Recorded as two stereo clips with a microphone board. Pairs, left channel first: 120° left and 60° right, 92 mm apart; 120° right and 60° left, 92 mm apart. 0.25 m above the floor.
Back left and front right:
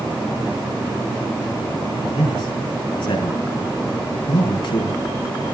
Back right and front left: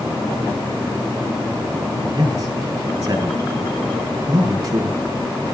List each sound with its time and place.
2.1 s a man speaking: 105° left, 5.5 m